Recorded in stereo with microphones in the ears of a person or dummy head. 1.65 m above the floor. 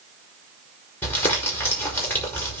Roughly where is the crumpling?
Centre.